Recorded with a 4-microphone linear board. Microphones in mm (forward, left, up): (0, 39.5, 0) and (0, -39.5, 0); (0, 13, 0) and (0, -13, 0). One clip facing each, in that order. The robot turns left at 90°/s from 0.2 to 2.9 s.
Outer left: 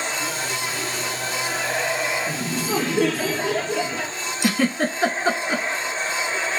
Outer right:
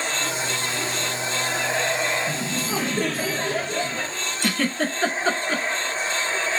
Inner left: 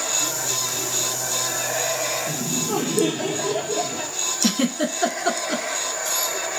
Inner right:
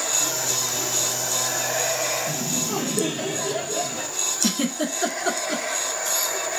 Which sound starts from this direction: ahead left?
Laughter, at 2.3 s.